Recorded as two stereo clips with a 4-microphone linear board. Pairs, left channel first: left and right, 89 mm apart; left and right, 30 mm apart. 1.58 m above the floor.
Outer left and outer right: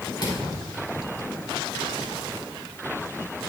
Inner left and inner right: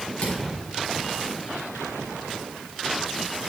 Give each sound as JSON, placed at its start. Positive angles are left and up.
{"t": 0.2, "sound": "a thud", "side_deg": 50, "distance_m": 3.5}